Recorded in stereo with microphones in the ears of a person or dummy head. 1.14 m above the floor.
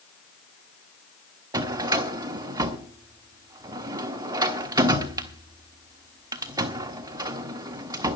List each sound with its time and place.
1.5 s a drawer: 20° right (ahead or behind), 1.3 m